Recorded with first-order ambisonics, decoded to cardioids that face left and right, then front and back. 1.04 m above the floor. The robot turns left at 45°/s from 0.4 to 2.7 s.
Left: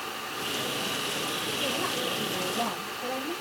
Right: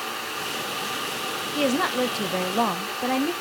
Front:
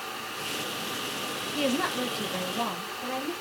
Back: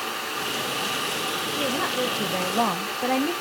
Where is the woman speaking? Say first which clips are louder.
Right 9 dB, back 1 dB; 80° right, 0.7 m; by 3.3 s 130° right, 0.7 m.